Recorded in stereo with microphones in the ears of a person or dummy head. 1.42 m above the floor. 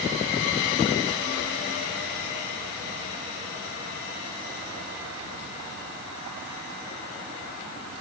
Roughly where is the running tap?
No running tap in this recording.